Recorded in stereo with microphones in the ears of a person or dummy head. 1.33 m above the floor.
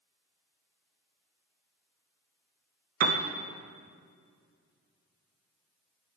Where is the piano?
50° right (ahead or behind), 0.7 m.